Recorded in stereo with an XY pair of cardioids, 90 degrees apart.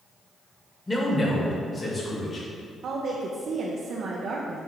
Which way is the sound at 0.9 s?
10° left.